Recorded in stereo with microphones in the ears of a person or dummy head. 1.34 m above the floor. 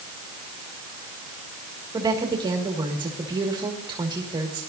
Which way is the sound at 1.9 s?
20° right (ahead or behind).